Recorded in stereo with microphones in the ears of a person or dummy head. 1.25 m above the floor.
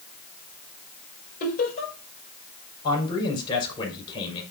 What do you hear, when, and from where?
1.4 s laughter: 50° left (ahead or behind), 5.5 m
2.8 s a man speaking: 25° left (ahead or behind), 6 m